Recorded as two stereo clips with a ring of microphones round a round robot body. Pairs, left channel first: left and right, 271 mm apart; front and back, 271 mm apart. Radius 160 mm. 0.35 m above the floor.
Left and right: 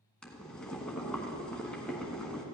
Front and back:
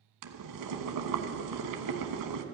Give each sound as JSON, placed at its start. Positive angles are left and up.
{"t": 0.2, "sound": "boiling", "azimuth_deg": 175, "distance_m": 1.1}